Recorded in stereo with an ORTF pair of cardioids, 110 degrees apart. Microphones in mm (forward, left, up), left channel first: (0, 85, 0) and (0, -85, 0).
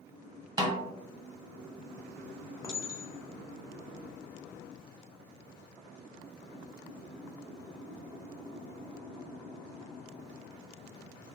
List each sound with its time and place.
0.6 s a snare drum: 25° right, 0.6 m
2.6 s a clink: 20° left, 0.8 m